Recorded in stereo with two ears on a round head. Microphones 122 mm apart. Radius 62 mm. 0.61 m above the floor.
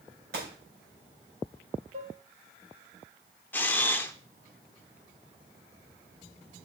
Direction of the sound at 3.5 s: 15° left (ahead or behind).